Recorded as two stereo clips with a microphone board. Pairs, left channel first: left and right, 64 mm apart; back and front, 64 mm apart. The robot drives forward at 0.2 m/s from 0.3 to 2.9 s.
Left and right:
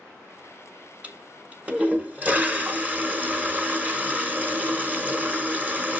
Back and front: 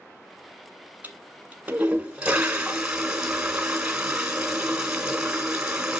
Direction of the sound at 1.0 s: 45° right.